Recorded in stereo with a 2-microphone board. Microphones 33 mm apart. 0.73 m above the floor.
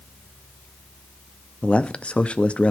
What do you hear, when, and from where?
1.6 s a man speaking: 35° left (ahead or behind), 0.6 m